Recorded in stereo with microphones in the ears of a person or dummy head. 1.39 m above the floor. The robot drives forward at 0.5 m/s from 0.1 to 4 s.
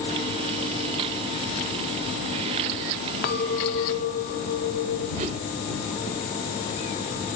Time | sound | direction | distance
3.2 | a clink | 55° left (ahead or behind) | 1.0 m
5.2 | a whoosh | 25° right (ahead or behind) | 0.7 m